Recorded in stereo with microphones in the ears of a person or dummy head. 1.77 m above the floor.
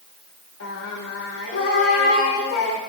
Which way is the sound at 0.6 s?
75° left (ahead or behind).